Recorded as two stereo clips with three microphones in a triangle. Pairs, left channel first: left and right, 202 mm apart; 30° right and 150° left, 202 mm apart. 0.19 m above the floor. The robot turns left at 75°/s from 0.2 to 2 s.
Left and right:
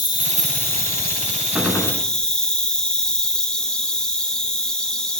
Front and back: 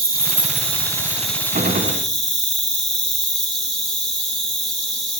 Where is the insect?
140° left, 1.0 m; by 5.2 s 5° left, 1.0 m.